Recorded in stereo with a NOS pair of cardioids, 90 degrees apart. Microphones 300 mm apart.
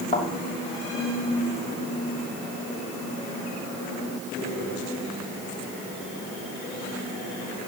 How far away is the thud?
About 3.5 m.